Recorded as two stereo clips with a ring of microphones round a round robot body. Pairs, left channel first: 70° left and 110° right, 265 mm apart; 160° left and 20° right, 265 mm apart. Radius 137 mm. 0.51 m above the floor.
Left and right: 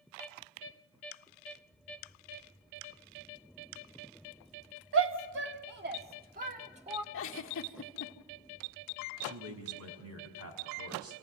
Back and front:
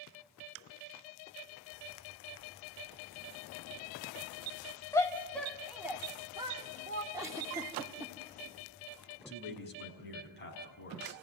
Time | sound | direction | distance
4.9 | a shout | 125° right | 1.7 m
7.1 | a giggle | 55° left | 1.5 m
9.2 | a man speaking | 150° right | 5 m